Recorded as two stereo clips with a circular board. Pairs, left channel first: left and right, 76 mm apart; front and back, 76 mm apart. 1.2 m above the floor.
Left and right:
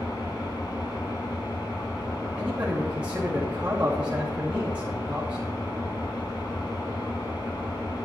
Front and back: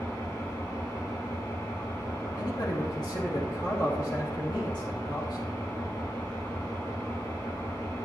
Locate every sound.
0.0 s an engine running: 60° left, 4.5 m
2.4 s a man speaking: 15° right, 2.5 m